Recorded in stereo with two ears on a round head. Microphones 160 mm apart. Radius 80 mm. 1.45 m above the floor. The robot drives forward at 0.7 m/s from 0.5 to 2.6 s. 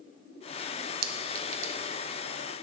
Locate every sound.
1.0 s a clink: 55° right (ahead or behind), 0.9 m; by 1.7 s 40° right (ahead or behind), 1.1 m